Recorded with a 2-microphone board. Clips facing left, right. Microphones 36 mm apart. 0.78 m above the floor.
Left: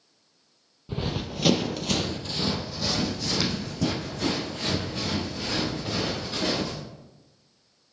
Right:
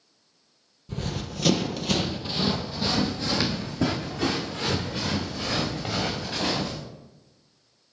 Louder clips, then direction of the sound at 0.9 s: Left 2 dB; 30° left (ahead or behind).